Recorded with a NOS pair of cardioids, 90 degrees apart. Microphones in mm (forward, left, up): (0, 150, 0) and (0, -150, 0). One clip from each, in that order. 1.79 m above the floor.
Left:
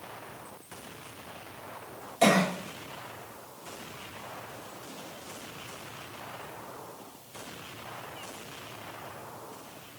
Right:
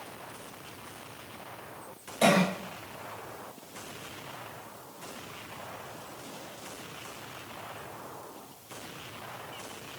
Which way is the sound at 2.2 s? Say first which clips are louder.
Left 1 dB; 10° left.